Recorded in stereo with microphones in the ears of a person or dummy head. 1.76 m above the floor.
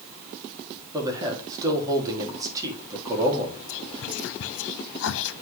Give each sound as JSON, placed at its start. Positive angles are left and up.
{"t": 0.9, "sound": "a man speaking", "side_deg": -20, "distance_m": 4.0}
{"t": 3.7, "sound": "whispering", "side_deg": 85, "distance_m": 0.9}